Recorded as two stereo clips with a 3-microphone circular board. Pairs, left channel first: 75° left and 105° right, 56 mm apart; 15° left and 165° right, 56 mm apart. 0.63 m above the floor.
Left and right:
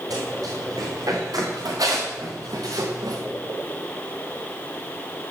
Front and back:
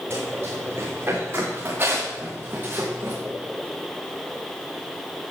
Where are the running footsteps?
120° right, 7.5 m; by 3.2 s 110° right, 3.5 m.